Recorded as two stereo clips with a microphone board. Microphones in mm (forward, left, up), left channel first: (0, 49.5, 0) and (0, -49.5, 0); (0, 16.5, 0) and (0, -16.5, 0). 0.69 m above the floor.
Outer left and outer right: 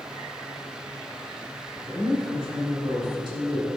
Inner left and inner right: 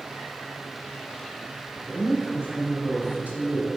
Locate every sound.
1.8 s a woman speaking: 50° right (ahead or behind), 3.5 m